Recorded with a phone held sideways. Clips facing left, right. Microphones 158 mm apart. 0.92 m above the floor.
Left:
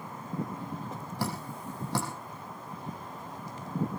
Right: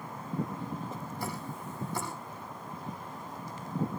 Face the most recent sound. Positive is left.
turn(degrees=75)  # may be behind; listen again after turning